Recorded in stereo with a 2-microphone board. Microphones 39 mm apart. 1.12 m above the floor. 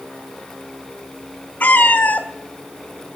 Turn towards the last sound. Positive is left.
turn(degrees=50)  # may be behind; listen again after turning